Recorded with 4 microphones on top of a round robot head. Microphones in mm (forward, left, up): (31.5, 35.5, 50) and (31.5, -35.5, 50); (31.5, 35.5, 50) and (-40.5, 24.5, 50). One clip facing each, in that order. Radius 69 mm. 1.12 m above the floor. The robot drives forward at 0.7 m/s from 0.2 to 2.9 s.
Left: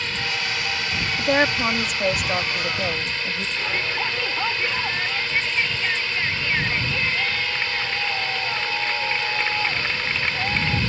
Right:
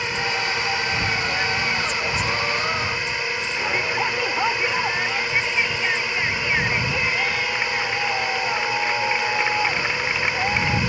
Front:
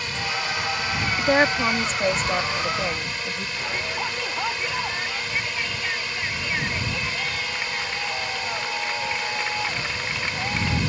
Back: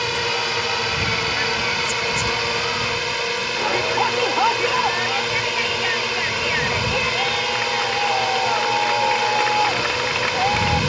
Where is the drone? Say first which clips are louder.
Right 3 dB, back 5 dB; 165° right.